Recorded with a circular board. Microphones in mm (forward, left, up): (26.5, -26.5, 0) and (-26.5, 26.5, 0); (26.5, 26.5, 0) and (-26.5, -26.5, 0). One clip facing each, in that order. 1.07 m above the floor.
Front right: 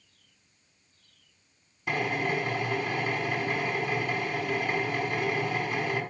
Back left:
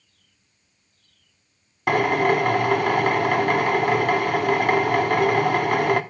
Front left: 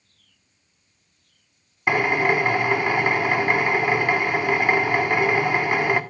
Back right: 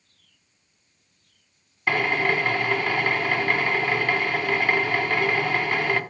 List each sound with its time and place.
1.9 s a drill: 115° left, 1.1 m